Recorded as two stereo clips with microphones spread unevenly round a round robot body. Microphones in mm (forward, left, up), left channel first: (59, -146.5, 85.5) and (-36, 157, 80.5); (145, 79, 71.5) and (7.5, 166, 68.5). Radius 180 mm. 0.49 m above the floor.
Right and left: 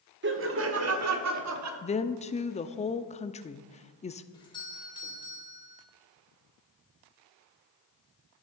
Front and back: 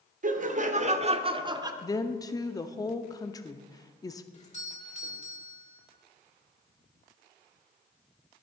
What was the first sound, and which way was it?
Laughter, 150° left.